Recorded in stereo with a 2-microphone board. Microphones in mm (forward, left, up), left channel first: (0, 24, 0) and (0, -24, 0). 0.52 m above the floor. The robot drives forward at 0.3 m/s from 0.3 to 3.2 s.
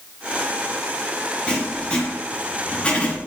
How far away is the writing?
About 2.5 m.